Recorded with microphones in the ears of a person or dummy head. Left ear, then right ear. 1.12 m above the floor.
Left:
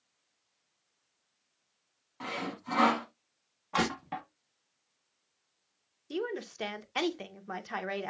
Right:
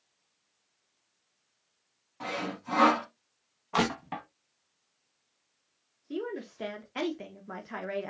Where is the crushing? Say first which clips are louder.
Right 2 dB; 5° right (ahead or behind), 1.1 m.